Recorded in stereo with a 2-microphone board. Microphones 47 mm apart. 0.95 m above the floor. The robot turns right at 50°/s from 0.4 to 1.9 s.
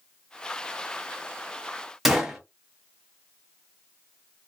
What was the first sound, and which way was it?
A gunshot, 5° right (ahead or behind).